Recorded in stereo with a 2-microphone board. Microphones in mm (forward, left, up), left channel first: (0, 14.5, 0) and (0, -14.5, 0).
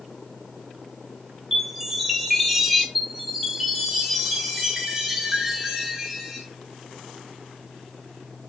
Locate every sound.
1.5 s a chime: 5° right (ahead or behind), 0.6 m
3.0 s a chime: 5° right (ahead or behind), 1.1 m